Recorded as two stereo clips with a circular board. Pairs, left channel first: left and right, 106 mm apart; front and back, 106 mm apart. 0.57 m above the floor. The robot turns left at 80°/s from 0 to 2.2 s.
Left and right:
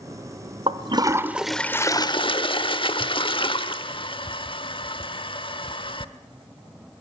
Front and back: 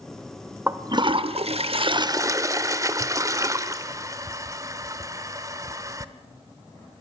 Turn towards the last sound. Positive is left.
turn(degrees=125)